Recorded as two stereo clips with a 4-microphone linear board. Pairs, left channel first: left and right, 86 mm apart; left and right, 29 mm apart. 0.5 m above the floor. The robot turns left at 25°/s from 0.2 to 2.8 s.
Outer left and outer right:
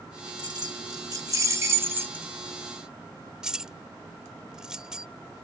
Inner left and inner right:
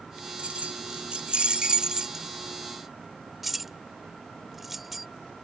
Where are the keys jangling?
55° right (ahead or behind); by 5.1 s 10° right (ahead or behind).